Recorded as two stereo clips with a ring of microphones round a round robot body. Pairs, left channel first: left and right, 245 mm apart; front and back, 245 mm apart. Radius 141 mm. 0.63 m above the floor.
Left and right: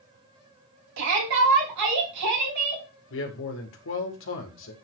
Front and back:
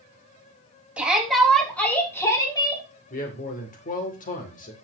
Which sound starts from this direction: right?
A shout, at 1.0 s.